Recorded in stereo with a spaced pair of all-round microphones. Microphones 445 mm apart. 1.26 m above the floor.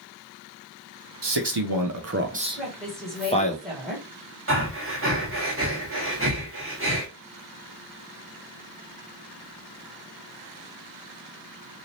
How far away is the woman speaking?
About 1.7 m.